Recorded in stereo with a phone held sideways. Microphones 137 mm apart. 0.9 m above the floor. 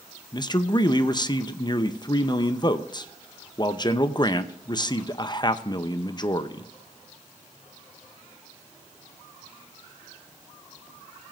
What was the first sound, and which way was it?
A man speaking, 30° left (ahead or behind).